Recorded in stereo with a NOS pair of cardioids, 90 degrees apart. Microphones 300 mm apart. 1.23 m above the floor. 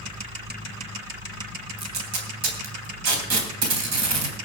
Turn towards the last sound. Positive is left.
turn(degrees=-65)